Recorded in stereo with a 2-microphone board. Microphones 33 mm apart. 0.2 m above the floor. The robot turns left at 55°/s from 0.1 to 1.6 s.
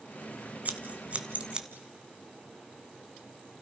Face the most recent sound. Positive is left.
turn(degrees=-25)  # may be behind; listen again after turning